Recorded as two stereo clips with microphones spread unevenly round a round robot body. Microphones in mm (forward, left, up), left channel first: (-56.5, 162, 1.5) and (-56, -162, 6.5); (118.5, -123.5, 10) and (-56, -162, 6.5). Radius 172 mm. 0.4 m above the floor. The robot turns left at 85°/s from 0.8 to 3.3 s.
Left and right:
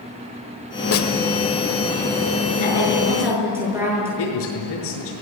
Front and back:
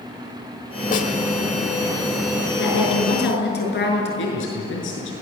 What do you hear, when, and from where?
0.9 s a snare drum: 55° left, 1.4 m; by 1.1 s 40° left, 1.4 m
2.6 s a woman speaking: 55° left, 6.5 m; by 4.1 s 5° right, 6.5 m
4.2 s a man speaking: 35° left, 6.5 m